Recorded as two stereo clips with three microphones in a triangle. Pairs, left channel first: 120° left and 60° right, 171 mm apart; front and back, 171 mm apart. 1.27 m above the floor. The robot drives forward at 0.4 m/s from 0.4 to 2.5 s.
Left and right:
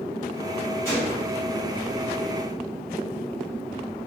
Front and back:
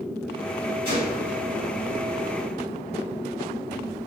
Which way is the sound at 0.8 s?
165° right.